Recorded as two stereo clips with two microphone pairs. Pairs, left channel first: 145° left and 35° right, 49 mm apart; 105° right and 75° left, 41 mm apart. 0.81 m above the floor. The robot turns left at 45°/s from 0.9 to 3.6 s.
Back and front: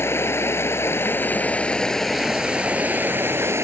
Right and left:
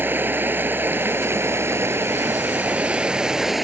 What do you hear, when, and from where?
0.0 s running water: 110° left; by 3.6 s 10° right